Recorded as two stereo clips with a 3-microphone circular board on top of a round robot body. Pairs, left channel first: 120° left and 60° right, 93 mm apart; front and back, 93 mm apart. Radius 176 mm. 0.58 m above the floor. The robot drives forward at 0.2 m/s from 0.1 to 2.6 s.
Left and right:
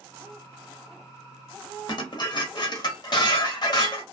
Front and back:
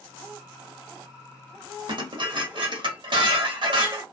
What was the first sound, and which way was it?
Dishes clattering, 155° left.